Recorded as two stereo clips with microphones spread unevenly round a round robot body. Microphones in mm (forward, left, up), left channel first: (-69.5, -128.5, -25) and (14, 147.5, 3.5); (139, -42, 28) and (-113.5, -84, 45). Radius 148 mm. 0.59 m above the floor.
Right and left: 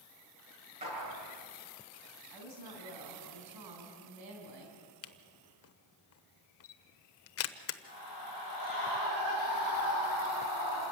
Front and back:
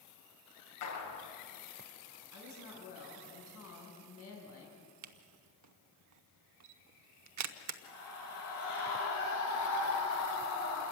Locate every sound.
0.8 s a clap: 5° left, 7 m
2.3 s a woman speaking: 55° left, 4 m
5.0 s a camera shutter: 150° right, 0.9 m
7.8 s a scream: 50° left, 9 m